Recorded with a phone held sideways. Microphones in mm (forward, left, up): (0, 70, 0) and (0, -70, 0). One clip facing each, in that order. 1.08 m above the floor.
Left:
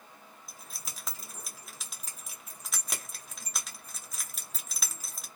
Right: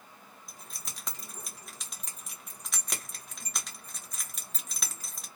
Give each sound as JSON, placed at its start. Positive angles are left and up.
{"t": 0.5, "sound": "keys jangling", "side_deg": 0, "distance_m": 0.8}